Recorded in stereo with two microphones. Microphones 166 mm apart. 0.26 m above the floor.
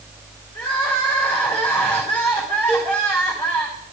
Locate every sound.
0.6 s crying: 10° left (ahead or behind), 4.5 m
2.7 s a cowbell: 50° right (ahead or behind), 2.5 m